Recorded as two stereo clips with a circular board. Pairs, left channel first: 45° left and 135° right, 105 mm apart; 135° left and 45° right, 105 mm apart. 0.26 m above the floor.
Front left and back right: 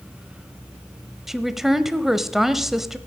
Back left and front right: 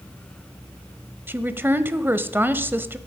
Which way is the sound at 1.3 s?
55° right.